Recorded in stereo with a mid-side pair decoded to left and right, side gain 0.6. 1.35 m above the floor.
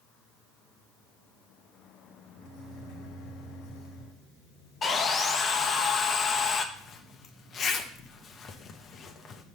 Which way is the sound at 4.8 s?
35° left.